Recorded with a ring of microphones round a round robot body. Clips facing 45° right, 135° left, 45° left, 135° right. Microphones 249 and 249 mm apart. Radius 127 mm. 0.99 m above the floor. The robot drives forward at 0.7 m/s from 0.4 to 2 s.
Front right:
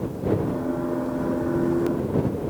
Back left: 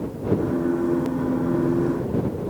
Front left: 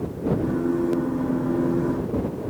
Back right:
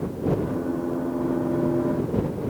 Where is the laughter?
No laughter in this recording.